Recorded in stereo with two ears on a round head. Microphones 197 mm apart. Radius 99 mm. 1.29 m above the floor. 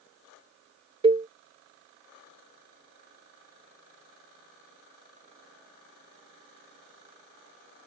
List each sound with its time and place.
1.0 s a cowbell: 25° right (ahead or behind)